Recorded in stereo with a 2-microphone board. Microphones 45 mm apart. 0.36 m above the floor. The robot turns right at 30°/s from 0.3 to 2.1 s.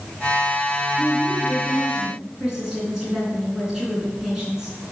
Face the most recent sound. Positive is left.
turn(degrees=-15)